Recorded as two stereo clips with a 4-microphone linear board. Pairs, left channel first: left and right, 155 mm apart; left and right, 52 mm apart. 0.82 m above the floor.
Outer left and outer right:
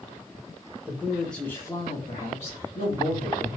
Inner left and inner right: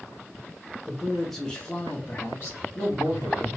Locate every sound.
0.9 s a man speaking: 15° right (ahead or behind), 0.7 m; by 3.5 s 60° left (ahead or behind), 1.3 m